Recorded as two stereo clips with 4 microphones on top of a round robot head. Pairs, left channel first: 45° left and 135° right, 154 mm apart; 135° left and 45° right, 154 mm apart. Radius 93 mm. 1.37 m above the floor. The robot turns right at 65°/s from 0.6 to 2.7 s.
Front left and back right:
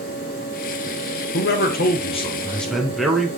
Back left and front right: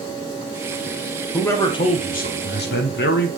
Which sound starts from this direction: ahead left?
A man speaking, at 1.3 s.